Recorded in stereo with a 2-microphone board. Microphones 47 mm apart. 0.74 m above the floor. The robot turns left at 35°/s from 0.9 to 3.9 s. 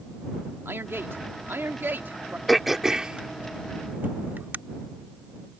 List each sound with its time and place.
0.7 s a man speaking: 80° right; by 2.4 s 130° right
2.5 s throat clearing: centre (ahead or behind); by 4.6 s 45° right (ahead or behind)